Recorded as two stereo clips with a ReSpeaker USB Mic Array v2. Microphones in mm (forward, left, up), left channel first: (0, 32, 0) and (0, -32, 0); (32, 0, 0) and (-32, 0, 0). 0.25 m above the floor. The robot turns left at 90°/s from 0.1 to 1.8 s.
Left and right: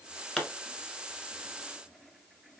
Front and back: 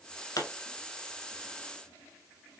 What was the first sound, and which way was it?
A pop, 10° left.